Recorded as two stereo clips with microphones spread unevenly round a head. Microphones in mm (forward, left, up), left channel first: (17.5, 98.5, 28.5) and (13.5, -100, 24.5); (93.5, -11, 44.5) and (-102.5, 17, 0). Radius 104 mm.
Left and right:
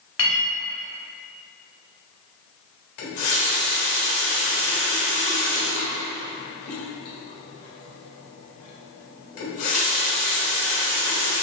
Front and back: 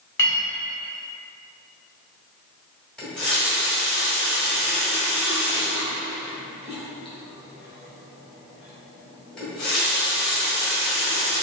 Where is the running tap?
80° left, 1.3 m.